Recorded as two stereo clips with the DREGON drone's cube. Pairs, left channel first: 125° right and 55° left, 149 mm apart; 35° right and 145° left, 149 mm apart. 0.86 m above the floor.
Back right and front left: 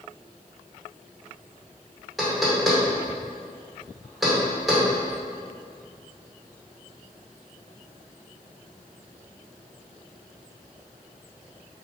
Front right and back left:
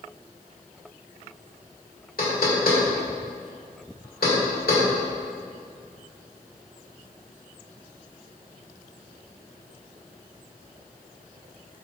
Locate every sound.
2.2 s knocking: 35° right, 2 m